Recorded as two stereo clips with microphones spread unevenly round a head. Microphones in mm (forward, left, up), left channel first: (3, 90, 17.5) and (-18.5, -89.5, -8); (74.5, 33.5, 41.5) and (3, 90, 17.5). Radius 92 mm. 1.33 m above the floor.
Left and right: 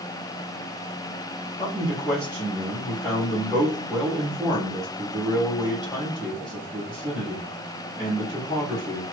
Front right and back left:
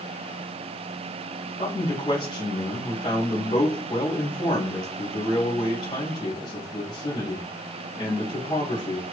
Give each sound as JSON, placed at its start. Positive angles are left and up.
{"t": 1.6, "sound": "a man speaking", "azimuth_deg": -5, "distance_m": 2.0}